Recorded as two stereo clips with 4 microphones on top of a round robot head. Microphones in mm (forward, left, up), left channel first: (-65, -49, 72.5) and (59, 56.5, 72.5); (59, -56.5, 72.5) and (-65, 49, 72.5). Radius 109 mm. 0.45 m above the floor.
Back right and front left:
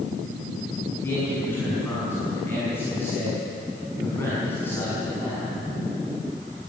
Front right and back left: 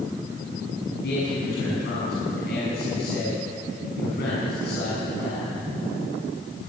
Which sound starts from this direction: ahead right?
A man speaking, at 1.0 s.